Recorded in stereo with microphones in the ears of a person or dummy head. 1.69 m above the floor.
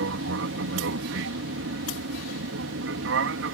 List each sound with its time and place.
0.0 s an aircraft: 65° right (ahead or behind)